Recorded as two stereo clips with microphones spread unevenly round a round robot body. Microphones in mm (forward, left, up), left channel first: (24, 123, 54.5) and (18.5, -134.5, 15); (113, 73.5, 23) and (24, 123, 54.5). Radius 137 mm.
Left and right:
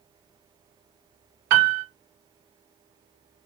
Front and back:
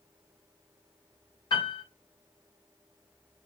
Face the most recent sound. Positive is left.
turn(degrees=-75)